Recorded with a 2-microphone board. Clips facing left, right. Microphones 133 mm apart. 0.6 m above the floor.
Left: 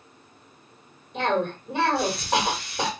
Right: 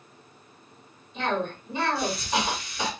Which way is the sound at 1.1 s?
60° left (ahead or behind).